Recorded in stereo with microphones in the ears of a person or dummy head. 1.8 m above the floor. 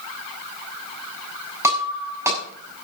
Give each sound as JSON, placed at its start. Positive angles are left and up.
{"t": 1.6, "sound": "breaking glass", "side_deg": -10, "distance_m": 7.0}